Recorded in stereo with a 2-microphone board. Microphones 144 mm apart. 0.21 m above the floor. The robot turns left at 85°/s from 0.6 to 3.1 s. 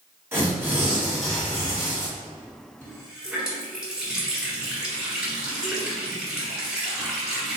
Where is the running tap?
15° left (ahead or behind), 1.4 m; by 7.6 s 5° right (ahead or behind), 1.4 m.